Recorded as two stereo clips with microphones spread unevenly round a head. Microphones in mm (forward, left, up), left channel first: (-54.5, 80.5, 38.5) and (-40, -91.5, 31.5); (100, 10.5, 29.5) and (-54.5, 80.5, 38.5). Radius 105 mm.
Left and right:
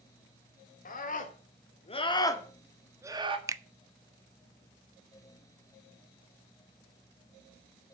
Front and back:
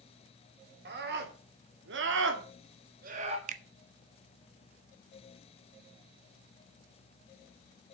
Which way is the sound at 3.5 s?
155° right.